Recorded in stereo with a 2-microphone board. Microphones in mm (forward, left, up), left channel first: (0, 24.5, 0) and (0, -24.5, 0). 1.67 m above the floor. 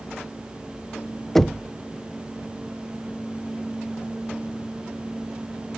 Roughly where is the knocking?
Centre.